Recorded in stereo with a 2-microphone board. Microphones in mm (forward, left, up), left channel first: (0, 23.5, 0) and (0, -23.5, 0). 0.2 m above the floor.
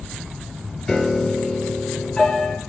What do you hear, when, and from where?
0.9 s a piano: 15° left (ahead or behind), 0.6 m